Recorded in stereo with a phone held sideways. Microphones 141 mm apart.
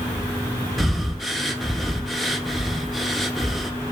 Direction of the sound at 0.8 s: Centre (ahead or behind).